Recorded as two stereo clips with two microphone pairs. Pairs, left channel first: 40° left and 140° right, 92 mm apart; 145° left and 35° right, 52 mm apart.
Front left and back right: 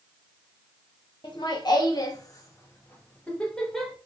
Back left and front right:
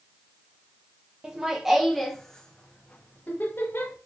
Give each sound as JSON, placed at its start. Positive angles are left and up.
{"t": 1.2, "sound": "laughter", "azimuth_deg": 35, "distance_m": 1.4}